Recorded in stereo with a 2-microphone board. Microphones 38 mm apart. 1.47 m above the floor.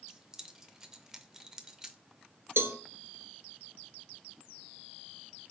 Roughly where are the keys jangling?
Centre.